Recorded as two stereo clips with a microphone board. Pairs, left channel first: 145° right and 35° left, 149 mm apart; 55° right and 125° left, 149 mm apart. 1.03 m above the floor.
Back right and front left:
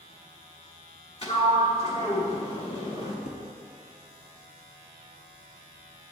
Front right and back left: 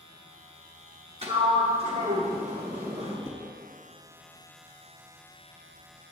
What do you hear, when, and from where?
1.2 s a sliding door: 170° left, 1.2 m
3.3 s dishes clattering: 120° right, 1.1 m